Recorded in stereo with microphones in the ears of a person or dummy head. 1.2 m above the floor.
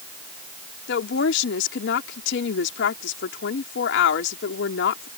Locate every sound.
0.9 s a woman speaking: 70° left (ahead or behind)